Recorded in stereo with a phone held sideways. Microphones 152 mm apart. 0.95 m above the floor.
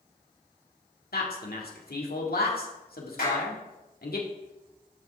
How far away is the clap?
About 5 m.